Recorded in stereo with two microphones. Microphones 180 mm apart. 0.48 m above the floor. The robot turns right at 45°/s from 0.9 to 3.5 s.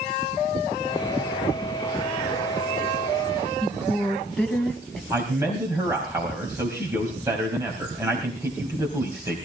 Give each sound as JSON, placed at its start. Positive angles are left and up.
{"t": 3.6, "sound": "a woman speaking", "side_deg": 5, "distance_m": 4.0}
{"t": 5.1, "sound": "a man speaking", "side_deg": -15, "distance_m": 3.5}